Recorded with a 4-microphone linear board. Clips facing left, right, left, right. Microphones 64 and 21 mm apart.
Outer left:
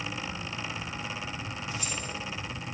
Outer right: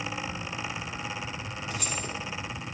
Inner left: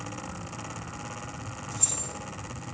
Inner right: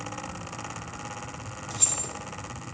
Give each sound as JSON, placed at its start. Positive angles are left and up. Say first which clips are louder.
{"t": 1.7, "sound": "keys jangling", "louder": "outer right 4 dB, inner right 3 dB", "side_deg": -60, "distance_m": 2.5}